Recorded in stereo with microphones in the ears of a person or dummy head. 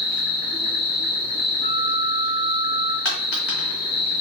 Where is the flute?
20° left (ahead or behind), 0.5 m.